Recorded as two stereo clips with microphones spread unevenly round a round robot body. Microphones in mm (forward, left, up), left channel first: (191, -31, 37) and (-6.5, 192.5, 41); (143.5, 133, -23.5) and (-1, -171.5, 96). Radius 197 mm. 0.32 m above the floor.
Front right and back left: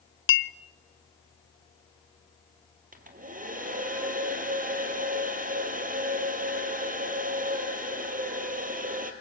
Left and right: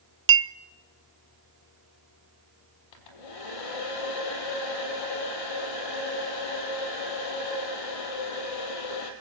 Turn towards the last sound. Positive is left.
turn(degrees=70)